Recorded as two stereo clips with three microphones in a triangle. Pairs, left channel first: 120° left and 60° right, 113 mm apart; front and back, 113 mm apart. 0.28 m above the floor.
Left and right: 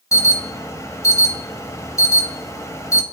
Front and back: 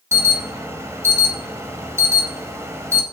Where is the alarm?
145° left, 0.9 m.